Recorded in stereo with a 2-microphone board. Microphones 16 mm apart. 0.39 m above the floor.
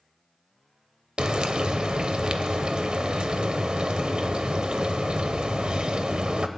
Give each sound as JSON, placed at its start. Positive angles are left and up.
{"t": 1.2, "sound": "frying", "side_deg": -60, "distance_m": 0.6}